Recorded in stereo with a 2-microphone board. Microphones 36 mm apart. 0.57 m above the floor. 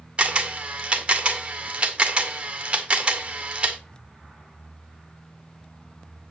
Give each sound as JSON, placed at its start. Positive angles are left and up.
{"t": 0.2, "sound": "a camera shutter", "side_deg": -30, "distance_m": 1.6}